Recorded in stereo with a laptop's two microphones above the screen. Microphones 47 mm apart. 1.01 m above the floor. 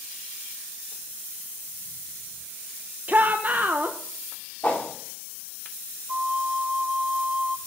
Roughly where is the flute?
Right.